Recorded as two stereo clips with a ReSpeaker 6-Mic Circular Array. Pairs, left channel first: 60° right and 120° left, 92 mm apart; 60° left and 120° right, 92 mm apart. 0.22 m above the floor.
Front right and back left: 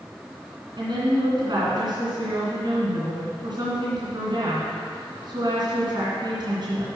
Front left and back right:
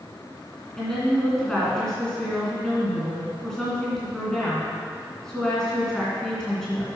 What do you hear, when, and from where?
0.8 s a woman speaking: 145° left, 2.5 m